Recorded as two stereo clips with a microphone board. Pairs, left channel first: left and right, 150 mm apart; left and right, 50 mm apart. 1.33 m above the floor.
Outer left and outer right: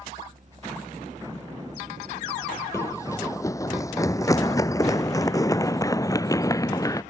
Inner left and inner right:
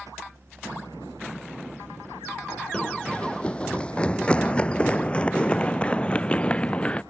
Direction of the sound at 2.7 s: 20° left (ahead or behind).